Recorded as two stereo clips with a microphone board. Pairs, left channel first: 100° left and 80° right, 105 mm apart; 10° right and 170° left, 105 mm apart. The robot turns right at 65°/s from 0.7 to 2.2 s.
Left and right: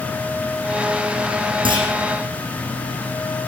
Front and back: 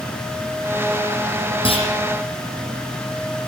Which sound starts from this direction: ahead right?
A clunk, at 1.6 s.